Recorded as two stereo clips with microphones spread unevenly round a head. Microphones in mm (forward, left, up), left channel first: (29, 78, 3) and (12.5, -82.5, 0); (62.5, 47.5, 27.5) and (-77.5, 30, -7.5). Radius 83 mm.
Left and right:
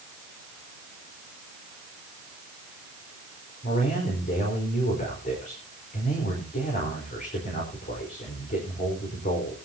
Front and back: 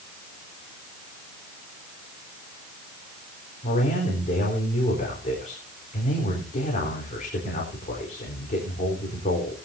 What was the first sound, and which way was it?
A man speaking, 45° left.